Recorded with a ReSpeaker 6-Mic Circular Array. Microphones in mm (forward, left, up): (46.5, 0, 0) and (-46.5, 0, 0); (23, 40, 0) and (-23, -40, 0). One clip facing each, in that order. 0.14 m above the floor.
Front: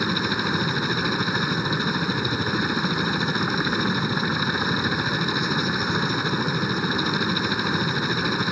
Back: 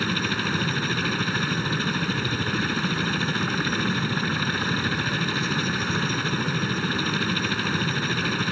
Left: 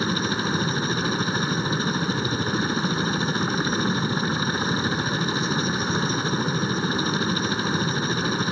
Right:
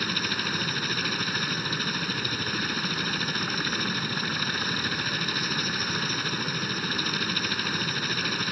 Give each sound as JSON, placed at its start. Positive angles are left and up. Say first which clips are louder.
{"t": 0.0, "sound": "a helicopter", "louder": "front 2 dB, left 6 dB", "azimuth_deg": 50}